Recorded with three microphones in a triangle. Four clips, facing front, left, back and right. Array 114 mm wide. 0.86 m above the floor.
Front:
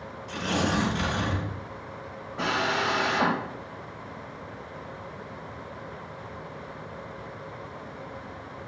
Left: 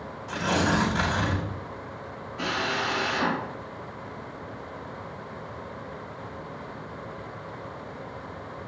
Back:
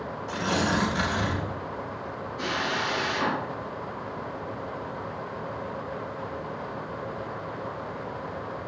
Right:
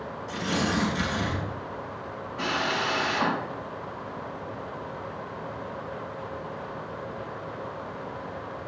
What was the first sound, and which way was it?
Tearing paper, 110° left.